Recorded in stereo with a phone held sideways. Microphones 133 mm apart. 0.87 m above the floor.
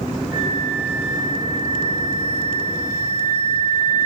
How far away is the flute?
About 1.3 m.